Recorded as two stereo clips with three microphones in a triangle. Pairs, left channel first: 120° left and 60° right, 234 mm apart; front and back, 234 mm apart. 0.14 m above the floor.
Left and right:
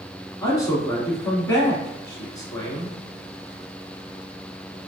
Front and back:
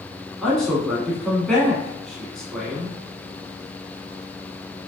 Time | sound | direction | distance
0.4 | a man speaking | 85° left | 1.0 m